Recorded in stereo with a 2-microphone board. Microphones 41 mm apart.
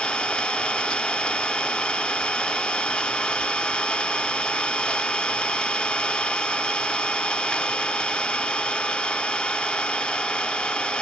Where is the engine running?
20° left (ahead or behind), 0.7 m.